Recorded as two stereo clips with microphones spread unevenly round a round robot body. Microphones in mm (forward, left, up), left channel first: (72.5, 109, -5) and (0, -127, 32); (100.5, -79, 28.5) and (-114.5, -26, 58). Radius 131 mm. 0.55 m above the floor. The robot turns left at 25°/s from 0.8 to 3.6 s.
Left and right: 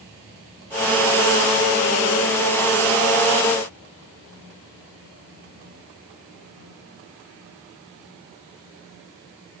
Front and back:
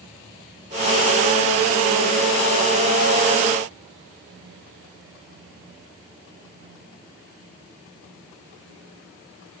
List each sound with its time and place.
Only background noise.